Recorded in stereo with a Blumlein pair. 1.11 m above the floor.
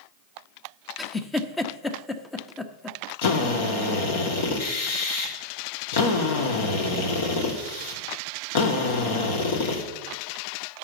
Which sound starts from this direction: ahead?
A giggle, at 1.0 s.